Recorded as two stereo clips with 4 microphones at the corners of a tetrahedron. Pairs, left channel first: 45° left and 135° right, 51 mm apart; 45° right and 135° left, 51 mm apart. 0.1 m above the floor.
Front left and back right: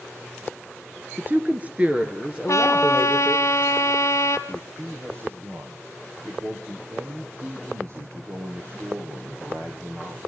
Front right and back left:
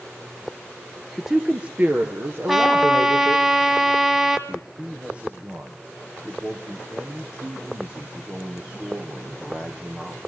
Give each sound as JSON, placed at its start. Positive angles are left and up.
{"t": 1.2, "sound": "a woman speaking", "azimuth_deg": -135, "distance_m": 1.5}
{"t": 2.5, "sound": "a trumpet", "azimuth_deg": 55, "distance_m": 2.0}
{"t": 4.5, "sound": "a man speaking", "azimuth_deg": -160, "distance_m": 3.0}